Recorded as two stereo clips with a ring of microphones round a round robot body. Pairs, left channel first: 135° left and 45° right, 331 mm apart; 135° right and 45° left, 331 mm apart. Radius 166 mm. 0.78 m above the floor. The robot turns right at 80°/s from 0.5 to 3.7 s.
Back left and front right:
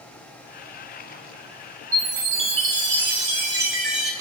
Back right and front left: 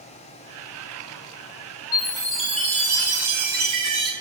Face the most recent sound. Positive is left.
turn(degrees=45)